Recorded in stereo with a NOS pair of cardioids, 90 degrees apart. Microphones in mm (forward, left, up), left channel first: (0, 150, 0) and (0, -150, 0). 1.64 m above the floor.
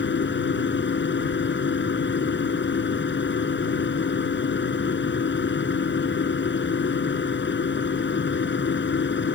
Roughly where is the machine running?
Ahead left.